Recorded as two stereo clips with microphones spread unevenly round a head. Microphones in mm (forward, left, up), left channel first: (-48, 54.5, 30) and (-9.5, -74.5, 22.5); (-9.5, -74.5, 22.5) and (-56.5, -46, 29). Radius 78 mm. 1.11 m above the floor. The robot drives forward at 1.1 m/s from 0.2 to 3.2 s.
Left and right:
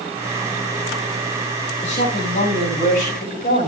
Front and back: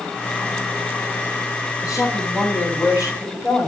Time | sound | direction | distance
1.8 | a woman speaking | 60° left | 8.5 m